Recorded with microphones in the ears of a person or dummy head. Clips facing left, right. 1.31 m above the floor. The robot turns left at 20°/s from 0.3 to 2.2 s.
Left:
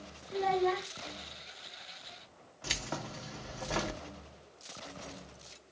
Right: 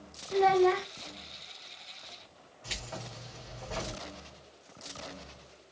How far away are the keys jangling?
About 1.0 m.